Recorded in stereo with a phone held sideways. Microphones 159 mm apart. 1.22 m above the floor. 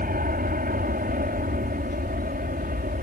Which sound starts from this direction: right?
An aircraft, at 0.0 s.